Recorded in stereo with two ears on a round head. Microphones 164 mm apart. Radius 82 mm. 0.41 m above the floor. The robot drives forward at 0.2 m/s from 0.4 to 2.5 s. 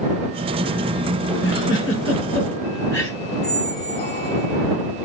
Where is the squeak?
60° left (ahead or behind), 1.8 m.